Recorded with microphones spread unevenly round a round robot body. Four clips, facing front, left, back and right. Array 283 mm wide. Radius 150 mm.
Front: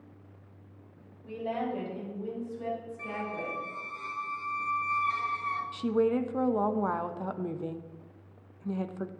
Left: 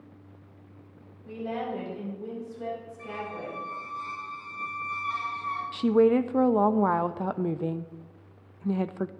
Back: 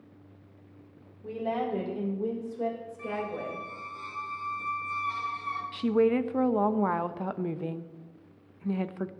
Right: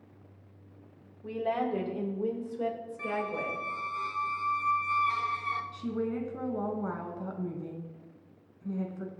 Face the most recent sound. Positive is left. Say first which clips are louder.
# left 12 dB, back 3 dB
turn(degrees=105)